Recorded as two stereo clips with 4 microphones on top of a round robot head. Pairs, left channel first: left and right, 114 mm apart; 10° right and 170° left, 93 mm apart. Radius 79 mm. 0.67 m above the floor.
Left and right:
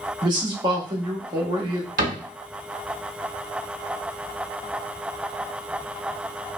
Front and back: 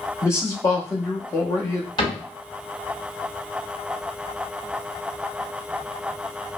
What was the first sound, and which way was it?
A man speaking, 60° right.